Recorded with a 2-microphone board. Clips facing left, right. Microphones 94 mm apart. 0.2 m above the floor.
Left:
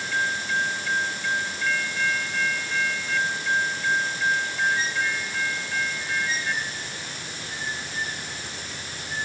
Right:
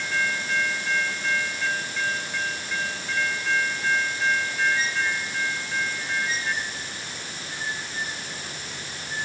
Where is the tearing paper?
I don't hear tearing paper.